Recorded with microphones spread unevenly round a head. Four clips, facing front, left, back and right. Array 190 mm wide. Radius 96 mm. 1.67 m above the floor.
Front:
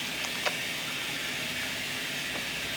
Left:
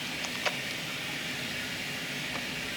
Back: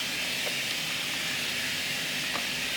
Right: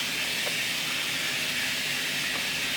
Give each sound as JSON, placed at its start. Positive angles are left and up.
{"t": 0.0, "sound": "running water", "azimuth_deg": -60, "distance_m": 2.5}